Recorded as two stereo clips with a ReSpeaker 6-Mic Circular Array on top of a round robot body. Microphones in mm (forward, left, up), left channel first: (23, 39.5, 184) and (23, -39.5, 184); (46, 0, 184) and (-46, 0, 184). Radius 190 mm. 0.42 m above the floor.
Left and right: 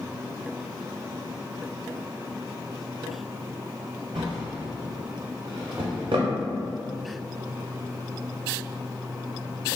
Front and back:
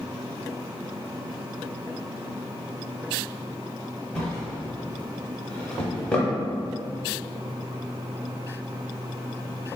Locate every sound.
4.2 s a drawer: 80° right, 0.7 m